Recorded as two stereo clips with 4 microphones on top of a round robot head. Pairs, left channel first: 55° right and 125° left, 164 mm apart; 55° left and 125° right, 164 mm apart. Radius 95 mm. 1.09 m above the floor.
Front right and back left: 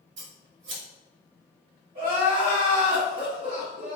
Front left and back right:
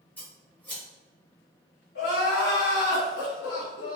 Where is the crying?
70° left, 1.8 m.